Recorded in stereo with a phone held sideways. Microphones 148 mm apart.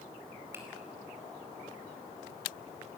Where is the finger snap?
15° right (ahead or behind), 4.5 m.